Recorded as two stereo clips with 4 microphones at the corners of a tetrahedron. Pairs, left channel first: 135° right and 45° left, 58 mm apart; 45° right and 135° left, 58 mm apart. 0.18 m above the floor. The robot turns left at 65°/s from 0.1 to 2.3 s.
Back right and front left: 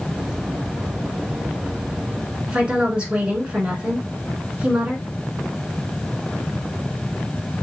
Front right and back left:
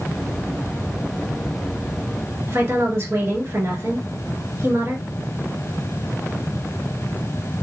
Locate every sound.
2.5 s a woman speaking: 110° left, 1.8 m